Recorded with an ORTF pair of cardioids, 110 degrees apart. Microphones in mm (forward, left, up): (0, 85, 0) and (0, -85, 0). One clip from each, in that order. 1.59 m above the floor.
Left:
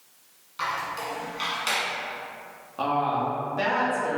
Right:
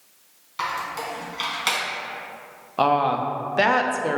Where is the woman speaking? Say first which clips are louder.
Right 5 dB; 45° right, 0.6 m.